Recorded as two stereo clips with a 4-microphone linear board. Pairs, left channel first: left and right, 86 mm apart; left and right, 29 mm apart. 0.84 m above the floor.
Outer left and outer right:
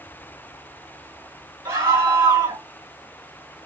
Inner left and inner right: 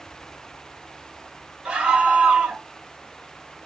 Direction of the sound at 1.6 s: 45° right (ahead or behind).